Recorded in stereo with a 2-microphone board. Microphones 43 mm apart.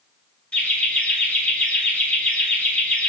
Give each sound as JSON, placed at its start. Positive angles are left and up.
{"t": 0.5, "sound": "laughter", "side_deg": 25, "distance_m": 1.9}